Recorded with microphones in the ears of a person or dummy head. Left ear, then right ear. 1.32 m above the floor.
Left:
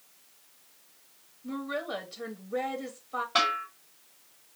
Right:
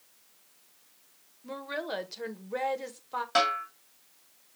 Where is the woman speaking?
30° right (ahead or behind), 0.9 m.